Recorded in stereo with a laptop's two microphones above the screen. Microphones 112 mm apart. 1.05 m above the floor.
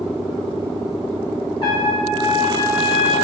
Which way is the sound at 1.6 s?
50° left (ahead or behind).